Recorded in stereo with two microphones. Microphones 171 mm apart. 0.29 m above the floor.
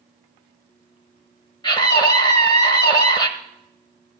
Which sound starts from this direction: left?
A scream, at 1.6 s.